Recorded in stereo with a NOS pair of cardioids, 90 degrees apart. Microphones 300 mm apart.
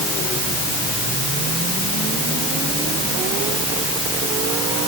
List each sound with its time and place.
Only background noise.